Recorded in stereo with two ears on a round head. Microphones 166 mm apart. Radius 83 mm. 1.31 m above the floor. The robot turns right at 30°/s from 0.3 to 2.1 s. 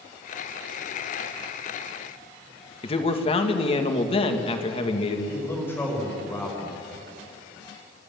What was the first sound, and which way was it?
A man speaking, 30° left (ahead or behind).